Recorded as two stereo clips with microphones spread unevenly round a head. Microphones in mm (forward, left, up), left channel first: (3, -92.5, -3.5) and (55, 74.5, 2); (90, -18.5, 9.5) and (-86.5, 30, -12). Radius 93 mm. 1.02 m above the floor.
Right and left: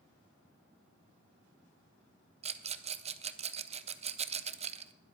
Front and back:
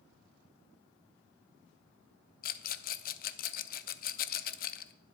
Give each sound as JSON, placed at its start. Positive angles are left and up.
{"t": 2.4, "sound": "a rattle", "azimuth_deg": 20, "distance_m": 0.7}